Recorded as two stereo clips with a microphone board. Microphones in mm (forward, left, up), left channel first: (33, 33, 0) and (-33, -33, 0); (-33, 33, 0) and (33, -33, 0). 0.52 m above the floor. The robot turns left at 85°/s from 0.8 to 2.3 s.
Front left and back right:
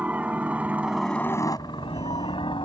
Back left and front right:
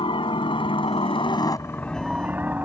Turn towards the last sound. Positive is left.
turn(degrees=30)